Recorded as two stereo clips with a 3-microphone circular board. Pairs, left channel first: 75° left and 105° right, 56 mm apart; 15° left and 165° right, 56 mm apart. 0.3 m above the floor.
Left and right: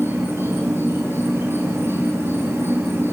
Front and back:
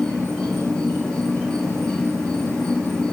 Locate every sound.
0.0 s an insect: 55° right, 5 m